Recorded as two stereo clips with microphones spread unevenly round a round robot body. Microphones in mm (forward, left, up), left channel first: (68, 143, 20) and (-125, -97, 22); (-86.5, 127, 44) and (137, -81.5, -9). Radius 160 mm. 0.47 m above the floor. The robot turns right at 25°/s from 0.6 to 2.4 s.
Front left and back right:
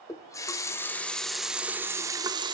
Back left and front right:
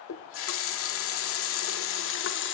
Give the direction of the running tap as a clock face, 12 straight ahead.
8 o'clock.